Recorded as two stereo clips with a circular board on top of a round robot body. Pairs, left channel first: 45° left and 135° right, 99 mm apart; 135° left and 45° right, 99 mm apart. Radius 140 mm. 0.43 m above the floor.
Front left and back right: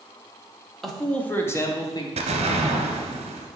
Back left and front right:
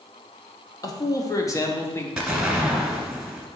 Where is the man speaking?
135° left, 1.4 m; by 2.1 s 80° left, 1.7 m.